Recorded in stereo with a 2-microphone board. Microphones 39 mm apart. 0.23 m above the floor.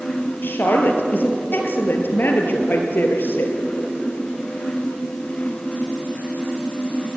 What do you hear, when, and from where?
0.4 s a woman speaking: 60° left (ahead or behind), 4 m